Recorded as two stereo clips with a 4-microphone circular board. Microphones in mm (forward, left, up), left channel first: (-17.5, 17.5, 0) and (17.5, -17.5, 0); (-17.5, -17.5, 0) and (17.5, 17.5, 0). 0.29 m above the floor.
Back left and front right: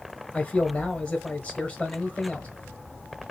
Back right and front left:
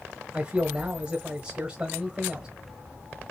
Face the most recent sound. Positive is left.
turn(degrees=95)